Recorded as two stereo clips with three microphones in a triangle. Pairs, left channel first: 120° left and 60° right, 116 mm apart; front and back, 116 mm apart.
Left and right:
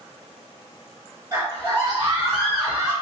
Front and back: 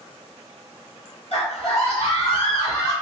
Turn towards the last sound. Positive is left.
turn(degrees=20)